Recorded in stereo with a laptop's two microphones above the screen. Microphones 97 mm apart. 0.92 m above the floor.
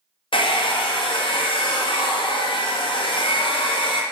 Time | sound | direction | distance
0.3 | a hair dryer | 60° left (ahead or behind) | 0.5 m